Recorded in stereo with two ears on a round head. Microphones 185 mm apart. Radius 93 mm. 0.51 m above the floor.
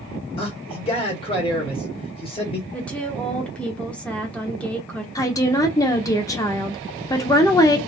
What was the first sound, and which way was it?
A man speaking, 25° left (ahead or behind).